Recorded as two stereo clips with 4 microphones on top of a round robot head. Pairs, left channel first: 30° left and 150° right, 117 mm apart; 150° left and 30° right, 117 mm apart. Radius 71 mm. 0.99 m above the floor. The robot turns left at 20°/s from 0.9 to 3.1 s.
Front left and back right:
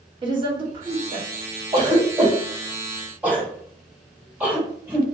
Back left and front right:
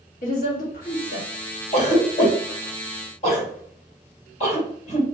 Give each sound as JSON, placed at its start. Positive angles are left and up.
{"t": 0.2, "sound": "a woman speaking", "azimuth_deg": 160, "distance_m": 1.5}
{"t": 1.7, "sound": "a cough", "azimuth_deg": 160, "distance_m": 1.8}